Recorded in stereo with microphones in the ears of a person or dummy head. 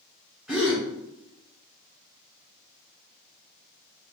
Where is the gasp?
5° right (ahead or behind), 1.0 m.